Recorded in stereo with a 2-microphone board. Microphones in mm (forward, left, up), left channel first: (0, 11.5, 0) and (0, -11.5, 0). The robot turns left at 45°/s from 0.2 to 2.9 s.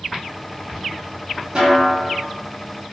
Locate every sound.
1.6 s a snare drum: 45° right (ahead or behind), 1.2 m; by 2.1 s 20° right (ahead or behind), 1.2 m